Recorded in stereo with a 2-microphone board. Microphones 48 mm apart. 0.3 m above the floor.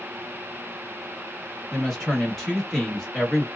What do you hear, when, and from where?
1.7 s a woman speaking: 5° left (ahead or behind), 1.2 m